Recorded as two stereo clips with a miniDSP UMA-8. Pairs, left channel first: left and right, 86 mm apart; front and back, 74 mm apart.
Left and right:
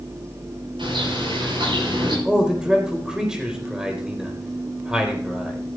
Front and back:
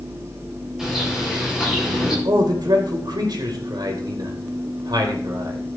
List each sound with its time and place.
0.8 s a bird: 95° right, 9 m
2.2 s a man speaking: 170° right, 4 m